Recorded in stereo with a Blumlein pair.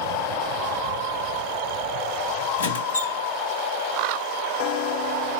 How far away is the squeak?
About 1.2 m.